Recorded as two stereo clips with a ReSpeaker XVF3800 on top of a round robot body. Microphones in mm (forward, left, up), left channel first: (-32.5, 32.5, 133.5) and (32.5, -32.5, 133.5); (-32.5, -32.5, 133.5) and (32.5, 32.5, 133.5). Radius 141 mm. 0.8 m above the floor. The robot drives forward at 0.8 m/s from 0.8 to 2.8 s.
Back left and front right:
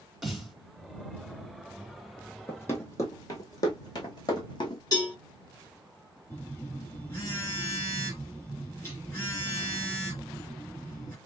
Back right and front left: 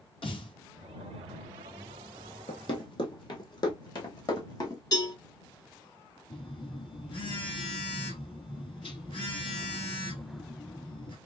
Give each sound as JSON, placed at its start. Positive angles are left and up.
{"t": 0.2, "sound": "a snare drum", "azimuth_deg": -135, "distance_m": 3.5}
{"t": 2.5, "sound": "running footsteps", "azimuth_deg": -155, "distance_m": 1.5}
{"t": 4.9, "sound": "a cowbell", "azimuth_deg": -175, "distance_m": 3.5}
{"t": 6.3, "sound": "a phone buzzing", "azimuth_deg": -160, "distance_m": 2.5}